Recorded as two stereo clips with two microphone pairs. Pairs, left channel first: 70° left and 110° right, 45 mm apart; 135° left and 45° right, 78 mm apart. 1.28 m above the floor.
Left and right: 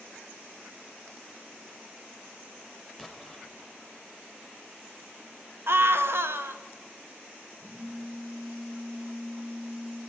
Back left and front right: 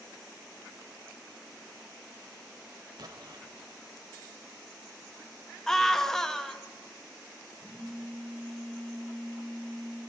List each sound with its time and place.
3.0 s an explosion: 20° right, 0.7 m
5.7 s a scream: 140° right, 0.5 m
7.6 s a phone buzzing: 165° right, 3.5 m